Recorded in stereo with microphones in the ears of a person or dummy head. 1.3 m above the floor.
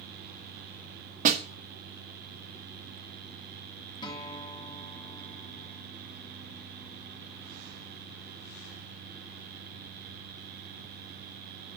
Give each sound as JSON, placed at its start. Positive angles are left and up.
{"t": 1.2, "sound": "a snare drum", "side_deg": -45, "distance_m": 1.8}
{"t": 4.0, "sound": "a guitar", "side_deg": 25, "distance_m": 2.0}